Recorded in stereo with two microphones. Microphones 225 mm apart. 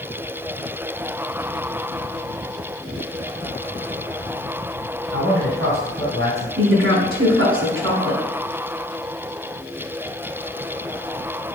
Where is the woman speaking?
65° right (ahead or behind), 4 m.